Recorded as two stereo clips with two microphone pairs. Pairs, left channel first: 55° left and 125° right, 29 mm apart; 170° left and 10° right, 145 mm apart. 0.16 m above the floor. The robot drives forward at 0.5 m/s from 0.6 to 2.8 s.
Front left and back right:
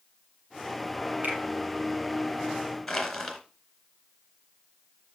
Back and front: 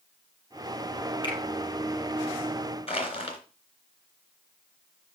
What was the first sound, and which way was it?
A finger snap, 130° right.